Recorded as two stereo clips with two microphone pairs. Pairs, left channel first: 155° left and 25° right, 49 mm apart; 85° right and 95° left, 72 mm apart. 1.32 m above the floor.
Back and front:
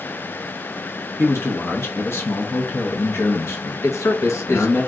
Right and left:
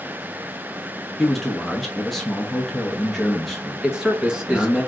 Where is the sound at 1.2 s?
170° right, 0.9 m.